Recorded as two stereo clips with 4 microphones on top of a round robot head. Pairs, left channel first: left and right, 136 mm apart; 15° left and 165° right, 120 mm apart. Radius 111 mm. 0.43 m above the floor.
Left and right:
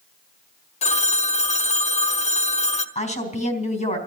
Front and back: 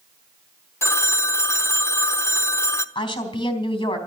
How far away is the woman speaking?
About 3.5 m.